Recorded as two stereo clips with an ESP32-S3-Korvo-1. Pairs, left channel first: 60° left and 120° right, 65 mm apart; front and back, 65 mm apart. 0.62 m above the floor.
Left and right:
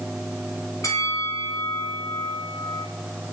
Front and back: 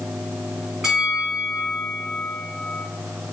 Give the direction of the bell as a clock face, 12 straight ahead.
9 o'clock.